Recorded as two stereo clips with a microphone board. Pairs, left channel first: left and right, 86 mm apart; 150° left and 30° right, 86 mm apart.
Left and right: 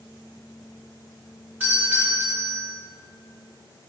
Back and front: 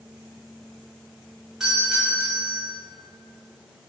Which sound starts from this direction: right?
A doorbell, at 1.6 s.